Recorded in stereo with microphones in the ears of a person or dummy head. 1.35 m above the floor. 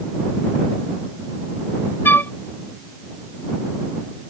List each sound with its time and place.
2.0 s a flute: 15° left (ahead or behind)